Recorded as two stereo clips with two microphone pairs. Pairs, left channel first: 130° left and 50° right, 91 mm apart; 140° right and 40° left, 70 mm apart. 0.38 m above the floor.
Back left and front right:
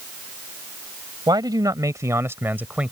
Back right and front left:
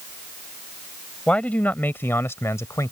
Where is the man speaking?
70° right; by 2.9 s 125° right.